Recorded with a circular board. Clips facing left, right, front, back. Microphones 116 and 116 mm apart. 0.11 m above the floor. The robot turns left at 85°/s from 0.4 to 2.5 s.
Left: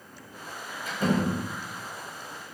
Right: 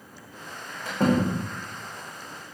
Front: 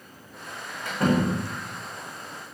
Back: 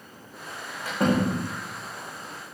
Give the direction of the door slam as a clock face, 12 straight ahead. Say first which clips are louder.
Right 3 dB, even; 3 o'clock.